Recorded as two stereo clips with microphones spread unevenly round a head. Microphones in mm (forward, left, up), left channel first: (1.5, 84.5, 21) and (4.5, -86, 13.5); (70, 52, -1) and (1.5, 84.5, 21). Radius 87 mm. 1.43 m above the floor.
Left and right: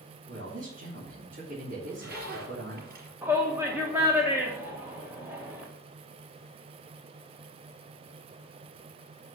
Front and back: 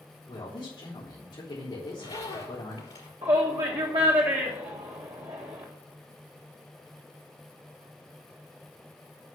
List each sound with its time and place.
0.3 s a man speaking: 65° right, 3.5 m
1.8 s a zipper: 60° right, 4.5 m
3.2 s a shout: 170° right, 1.2 m